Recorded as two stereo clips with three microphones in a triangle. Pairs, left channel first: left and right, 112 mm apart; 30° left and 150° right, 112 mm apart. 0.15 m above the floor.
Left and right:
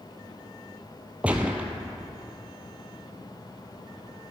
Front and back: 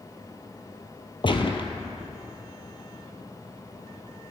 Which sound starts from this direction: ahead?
A gunshot, at 1.2 s.